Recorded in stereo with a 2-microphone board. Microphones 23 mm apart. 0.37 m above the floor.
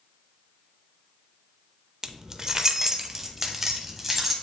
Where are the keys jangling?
20° right (ahead or behind), 0.5 m; by 4.3 s 10° right (ahead or behind), 1.5 m.